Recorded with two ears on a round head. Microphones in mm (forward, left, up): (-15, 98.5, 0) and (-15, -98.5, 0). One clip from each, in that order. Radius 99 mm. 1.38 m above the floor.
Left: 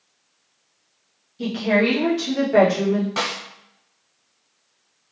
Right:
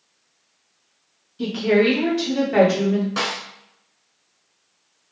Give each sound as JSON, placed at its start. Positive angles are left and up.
{"t": 1.4, "sound": "a woman speaking", "side_deg": -5, "distance_m": 1.8}
{"t": 3.2, "sound": "a snare drum", "side_deg": 10, "distance_m": 1.4}